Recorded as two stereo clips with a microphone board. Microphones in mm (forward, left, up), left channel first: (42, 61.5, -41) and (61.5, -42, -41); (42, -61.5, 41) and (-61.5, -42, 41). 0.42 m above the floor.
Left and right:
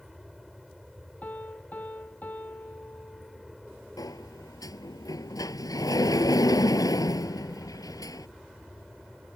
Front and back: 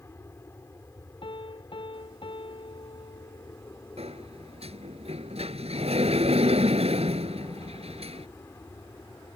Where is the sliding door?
155° left.